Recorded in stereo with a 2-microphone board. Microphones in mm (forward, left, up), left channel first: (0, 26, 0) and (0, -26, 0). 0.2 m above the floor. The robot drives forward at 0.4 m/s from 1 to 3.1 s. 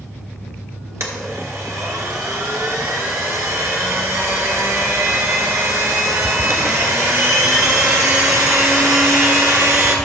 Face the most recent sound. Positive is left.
turn(degrees=-65)  # may be behind; listen again after turning